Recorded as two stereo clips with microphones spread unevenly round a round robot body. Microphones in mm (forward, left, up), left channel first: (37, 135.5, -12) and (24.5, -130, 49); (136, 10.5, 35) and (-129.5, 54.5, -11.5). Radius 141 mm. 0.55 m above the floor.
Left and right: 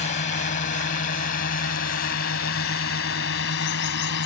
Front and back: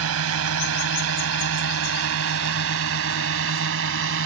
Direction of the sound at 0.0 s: 145° left.